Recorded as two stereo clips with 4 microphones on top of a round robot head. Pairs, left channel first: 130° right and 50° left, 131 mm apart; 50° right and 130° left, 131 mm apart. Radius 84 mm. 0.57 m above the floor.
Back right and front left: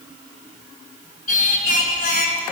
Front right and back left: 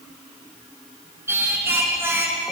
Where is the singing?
155° right, 1.8 m.